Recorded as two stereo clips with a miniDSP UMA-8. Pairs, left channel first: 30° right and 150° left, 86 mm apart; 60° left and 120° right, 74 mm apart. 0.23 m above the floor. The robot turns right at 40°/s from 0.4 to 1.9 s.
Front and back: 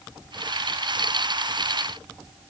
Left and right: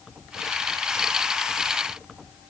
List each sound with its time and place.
Only background noise.